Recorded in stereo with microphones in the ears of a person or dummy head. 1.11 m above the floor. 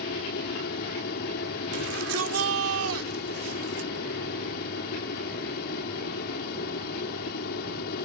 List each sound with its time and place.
0.0 s an aircraft: 55° left (ahead or behind)
1.7 s a shout: 80° right